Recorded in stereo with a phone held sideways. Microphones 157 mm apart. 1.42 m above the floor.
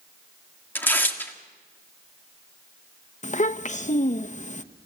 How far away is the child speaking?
About 0.9 m.